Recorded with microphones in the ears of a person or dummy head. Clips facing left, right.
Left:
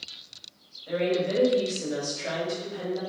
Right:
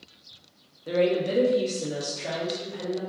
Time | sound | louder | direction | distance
0.9 | a woman speaking | right 2 dB | 55° right (ahead or behind) | 0.7 m